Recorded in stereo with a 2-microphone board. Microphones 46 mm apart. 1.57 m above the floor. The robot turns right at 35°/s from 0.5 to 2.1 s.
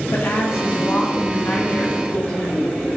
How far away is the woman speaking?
About 1.3 m.